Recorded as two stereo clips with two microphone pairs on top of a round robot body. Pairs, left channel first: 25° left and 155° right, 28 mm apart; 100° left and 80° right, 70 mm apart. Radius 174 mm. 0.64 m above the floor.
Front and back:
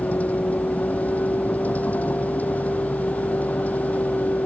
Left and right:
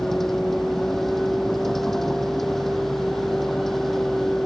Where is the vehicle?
10° left.